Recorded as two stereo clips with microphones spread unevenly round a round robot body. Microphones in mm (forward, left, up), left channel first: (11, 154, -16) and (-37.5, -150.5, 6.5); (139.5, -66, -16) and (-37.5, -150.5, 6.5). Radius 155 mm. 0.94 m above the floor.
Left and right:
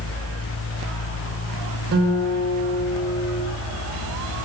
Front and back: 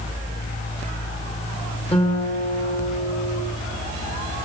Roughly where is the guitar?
Ahead right.